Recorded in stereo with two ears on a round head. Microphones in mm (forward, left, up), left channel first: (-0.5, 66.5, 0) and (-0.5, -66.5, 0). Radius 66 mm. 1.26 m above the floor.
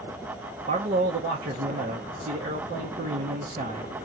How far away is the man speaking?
About 1.1 m.